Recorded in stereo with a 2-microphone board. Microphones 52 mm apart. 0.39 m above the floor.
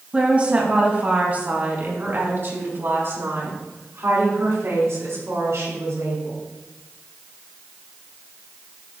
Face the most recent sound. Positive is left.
turn(degrees=-75)  # may be behind; listen again after turning